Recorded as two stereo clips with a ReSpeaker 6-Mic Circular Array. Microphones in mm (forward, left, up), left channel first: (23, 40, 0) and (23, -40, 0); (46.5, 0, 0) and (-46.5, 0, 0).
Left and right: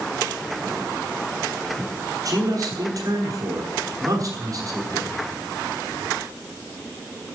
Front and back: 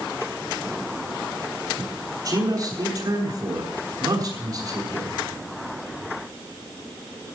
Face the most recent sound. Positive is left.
turn(degrees=-135)